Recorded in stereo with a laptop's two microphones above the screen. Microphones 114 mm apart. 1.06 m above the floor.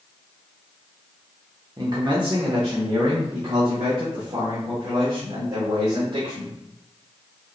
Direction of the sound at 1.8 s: 35° right (ahead or behind).